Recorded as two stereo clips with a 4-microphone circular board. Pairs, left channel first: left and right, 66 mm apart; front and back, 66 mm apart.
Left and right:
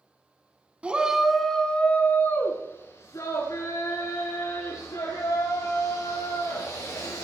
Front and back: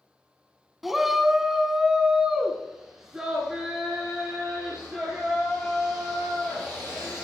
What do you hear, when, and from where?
0.8 s a shout: 100° right, 1.0 m; by 7.2 s 95° left, 4 m